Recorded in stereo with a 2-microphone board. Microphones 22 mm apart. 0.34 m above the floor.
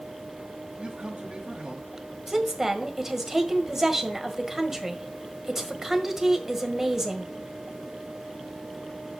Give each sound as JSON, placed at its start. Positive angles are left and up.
{"t": 0.8, "sound": "a man speaking", "side_deg": -45, "distance_m": 1.8}
{"t": 2.3, "sound": "a woman speaking", "side_deg": -20, "distance_m": 1.6}